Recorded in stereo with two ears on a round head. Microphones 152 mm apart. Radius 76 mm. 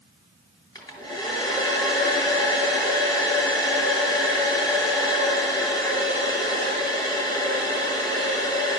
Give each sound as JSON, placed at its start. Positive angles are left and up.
{"t": 0.8, "sound": "a hair dryer", "side_deg": 25, "distance_m": 2.5}